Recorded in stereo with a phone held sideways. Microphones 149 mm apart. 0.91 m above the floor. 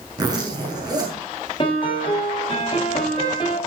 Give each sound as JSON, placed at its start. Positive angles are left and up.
{"t": 0.2, "sound": "a zipper", "side_deg": -30, "distance_m": 6.5}
{"t": 1.6, "sound": "a piano", "side_deg": 35, "distance_m": 5.5}